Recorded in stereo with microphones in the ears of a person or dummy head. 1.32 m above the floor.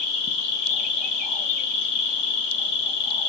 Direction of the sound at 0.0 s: 65° left (ahead or behind).